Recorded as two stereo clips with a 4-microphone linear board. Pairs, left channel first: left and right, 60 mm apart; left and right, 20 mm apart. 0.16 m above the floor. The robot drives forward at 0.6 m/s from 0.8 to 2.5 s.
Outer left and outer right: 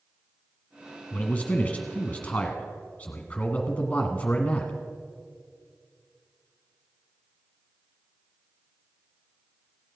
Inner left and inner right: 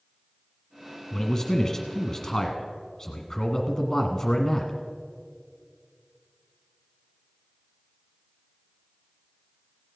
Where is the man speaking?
25° left (ahead or behind), 1.4 m.